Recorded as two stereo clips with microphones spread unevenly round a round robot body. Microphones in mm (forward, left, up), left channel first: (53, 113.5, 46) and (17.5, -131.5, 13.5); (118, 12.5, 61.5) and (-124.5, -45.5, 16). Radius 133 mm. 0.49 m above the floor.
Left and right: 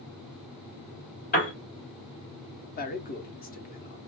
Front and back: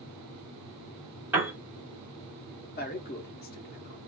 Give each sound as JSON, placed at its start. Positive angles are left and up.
{"t": 1.3, "sound": "a piano", "azimuth_deg": 130, "distance_m": 1.5}
{"t": 2.8, "sound": "a man speaking", "azimuth_deg": 50, "distance_m": 0.8}